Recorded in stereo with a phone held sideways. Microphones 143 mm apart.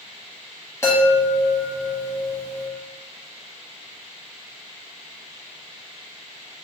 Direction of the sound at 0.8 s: 20° left (ahead or behind).